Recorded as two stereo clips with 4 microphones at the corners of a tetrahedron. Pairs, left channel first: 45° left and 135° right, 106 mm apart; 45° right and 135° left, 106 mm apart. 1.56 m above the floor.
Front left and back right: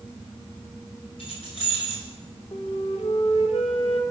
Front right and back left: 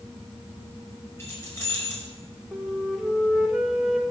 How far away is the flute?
About 1.5 m.